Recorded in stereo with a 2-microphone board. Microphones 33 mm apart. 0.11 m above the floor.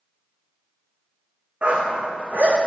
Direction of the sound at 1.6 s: 40° right (ahead or behind).